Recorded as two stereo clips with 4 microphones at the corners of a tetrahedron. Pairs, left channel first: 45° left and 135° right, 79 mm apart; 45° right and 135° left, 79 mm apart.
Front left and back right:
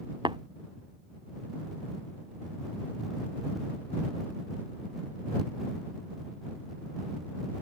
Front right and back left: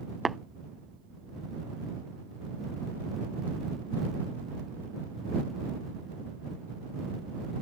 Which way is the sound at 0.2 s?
135° right.